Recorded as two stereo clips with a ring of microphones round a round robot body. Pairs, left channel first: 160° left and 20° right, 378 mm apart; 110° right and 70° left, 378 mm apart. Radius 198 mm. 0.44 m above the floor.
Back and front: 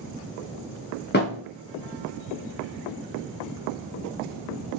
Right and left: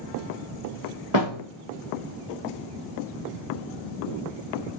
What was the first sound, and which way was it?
A thud, 140° right.